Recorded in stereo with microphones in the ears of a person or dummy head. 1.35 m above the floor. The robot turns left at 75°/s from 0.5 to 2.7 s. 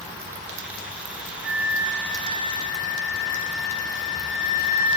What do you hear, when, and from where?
1.4 s a flute: 80° right, 0.6 m; by 5.0 s 175° right, 0.6 m